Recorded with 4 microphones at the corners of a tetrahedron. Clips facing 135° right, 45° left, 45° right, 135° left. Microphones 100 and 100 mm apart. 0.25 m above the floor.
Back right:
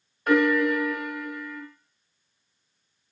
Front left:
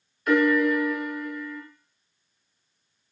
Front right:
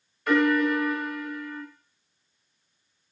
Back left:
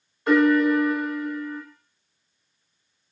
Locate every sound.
0.3 s a piano: 170° right, 2.0 m